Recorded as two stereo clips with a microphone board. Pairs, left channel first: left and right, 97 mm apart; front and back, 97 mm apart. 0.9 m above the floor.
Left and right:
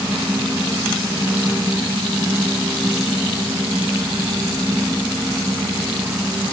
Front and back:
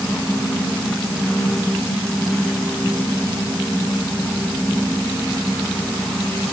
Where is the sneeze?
No sneeze in this recording.